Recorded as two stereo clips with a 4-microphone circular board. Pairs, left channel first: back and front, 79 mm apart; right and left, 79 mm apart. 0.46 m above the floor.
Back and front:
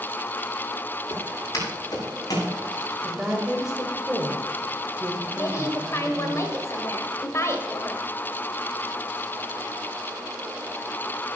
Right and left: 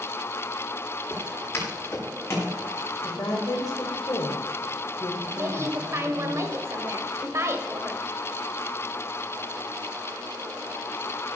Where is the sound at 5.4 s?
135° left, 2.0 m.